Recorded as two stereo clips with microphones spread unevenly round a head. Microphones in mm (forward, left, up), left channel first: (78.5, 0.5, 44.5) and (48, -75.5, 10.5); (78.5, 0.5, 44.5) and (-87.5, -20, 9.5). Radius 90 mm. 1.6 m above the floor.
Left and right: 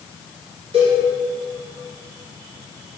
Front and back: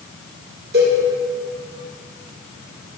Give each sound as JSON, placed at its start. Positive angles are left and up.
{"t": 0.7, "sound": "a cowbell", "azimuth_deg": -140, "distance_m": 5.0}